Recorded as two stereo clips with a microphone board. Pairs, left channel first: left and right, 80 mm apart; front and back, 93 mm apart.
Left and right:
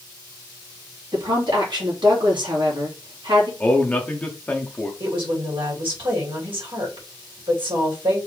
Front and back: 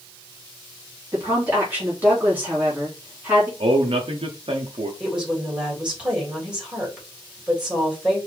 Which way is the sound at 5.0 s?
100° right.